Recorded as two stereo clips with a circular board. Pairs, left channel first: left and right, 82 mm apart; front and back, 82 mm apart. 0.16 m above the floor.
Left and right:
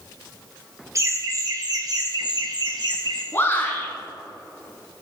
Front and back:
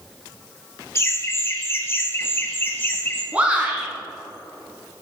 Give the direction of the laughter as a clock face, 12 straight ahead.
2 o'clock.